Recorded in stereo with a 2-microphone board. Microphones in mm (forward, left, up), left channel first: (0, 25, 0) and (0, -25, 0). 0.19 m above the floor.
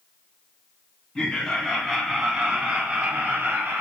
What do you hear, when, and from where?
1.1 s laughter: 20° left (ahead or behind), 1.3 m; by 3.8 s 35° right (ahead or behind), 1.8 m